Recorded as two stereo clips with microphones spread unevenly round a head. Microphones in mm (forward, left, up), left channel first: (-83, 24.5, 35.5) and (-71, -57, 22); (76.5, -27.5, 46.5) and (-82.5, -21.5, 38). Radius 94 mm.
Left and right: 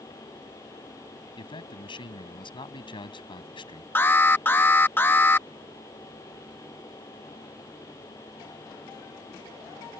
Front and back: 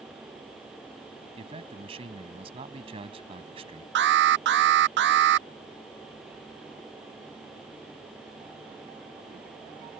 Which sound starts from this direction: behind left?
A man speaking, at 1.4 s.